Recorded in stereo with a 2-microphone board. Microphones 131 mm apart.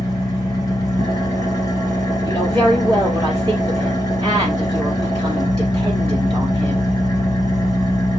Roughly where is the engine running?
Left.